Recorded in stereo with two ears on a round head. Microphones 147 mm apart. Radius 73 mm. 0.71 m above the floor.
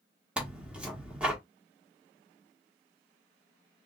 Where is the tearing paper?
5° right (ahead or behind), 1.3 m.